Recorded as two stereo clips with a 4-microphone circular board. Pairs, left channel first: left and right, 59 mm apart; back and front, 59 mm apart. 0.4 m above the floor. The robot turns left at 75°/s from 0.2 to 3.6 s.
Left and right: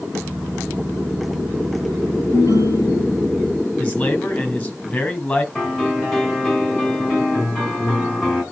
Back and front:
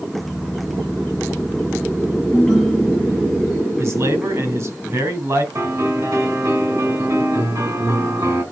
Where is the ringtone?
110° left, 5.5 m; by 3.5 s 20° left, 5.5 m.